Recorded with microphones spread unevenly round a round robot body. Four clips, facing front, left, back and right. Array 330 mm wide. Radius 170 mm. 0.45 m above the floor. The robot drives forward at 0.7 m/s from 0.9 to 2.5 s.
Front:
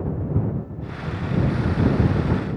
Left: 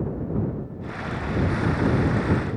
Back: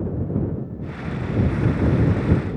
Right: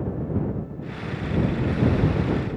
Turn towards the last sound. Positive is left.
No sound to turn to.